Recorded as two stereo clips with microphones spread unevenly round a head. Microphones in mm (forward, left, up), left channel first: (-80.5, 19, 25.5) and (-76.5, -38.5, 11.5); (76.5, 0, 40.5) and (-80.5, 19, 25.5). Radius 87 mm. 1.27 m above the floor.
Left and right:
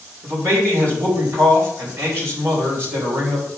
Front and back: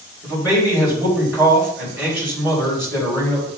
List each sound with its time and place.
0.2 s a man speaking: 110° right, 4 m